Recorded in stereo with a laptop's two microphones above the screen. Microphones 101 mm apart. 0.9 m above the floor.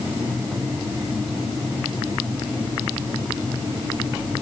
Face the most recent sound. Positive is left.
No sound to turn to.